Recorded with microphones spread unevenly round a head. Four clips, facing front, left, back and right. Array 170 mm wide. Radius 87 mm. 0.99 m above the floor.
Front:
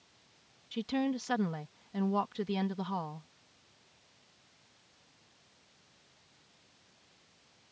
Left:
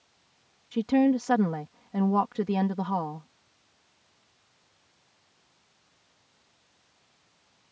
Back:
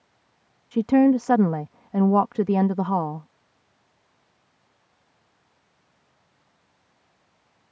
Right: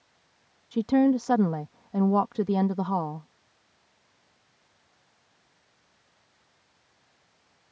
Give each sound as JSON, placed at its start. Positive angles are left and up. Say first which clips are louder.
{"t": 0.7, "sound": "a woman speaking", "louder": "right 1 dB, back 16 dB", "azimuth_deg": 180}